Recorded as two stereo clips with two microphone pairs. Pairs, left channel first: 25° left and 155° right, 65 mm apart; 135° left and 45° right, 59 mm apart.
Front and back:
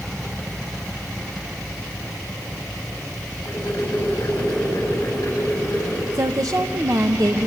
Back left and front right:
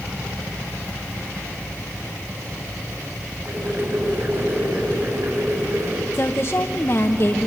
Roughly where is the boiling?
Ahead.